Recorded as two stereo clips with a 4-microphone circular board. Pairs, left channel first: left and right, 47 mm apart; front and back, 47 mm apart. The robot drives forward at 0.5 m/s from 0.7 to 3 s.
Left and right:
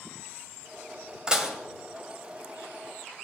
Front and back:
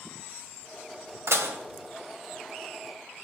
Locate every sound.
1.3 s dishes clattering: 165° right, 1.9 m